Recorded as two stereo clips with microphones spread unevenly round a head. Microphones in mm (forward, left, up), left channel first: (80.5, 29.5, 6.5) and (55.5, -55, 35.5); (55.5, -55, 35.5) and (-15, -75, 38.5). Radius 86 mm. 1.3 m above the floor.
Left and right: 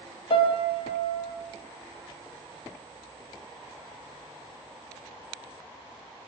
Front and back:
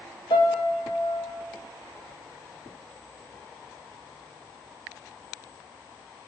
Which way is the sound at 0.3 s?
45° left.